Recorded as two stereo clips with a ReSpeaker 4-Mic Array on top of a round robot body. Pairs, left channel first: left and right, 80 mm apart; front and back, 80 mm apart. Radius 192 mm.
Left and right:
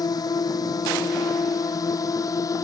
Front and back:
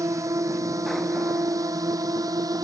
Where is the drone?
130° left; by 2.6 s 140° left.